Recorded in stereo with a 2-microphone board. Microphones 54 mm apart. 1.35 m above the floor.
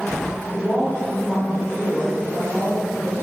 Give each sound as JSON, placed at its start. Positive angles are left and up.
{"t": 0.5, "sound": "a woman speaking", "side_deg": 5, "distance_m": 4.0}